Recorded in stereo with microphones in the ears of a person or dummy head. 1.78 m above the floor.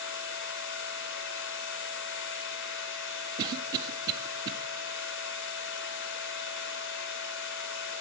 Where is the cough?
25° right (ahead or behind), 0.5 m.